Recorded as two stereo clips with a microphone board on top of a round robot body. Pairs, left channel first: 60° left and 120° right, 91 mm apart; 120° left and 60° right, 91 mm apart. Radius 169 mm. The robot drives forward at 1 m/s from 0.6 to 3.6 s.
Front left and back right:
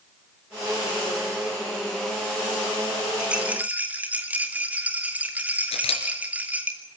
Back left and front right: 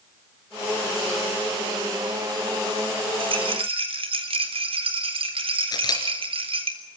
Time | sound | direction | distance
3.2 | a rattle | 40° right | 3 m
5.7 | a camera shutter | 75° left | 2.5 m